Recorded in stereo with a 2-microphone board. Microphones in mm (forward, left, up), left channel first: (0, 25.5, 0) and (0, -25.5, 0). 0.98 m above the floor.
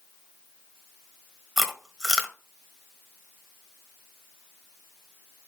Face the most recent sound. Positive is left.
turn(degrees=0)  # may be behind; listen again after turning